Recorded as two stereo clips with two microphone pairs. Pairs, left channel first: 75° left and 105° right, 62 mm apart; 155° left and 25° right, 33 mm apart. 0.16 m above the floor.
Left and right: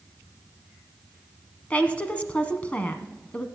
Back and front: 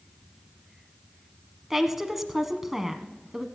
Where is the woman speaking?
45° left, 1.2 m.